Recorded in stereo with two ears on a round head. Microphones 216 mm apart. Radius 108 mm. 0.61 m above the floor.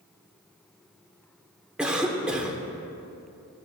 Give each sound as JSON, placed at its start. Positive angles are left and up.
{"t": 1.8, "sound": "a cough", "side_deg": -5, "distance_m": 1.8}